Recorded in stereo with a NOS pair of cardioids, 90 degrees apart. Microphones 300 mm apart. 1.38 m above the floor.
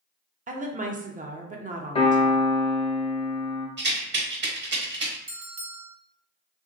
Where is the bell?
45° right, 0.8 m.